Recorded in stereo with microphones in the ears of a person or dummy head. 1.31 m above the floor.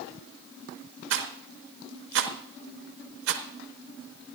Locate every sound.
1.1 s a rattle: 75° right (ahead or behind), 1.1 m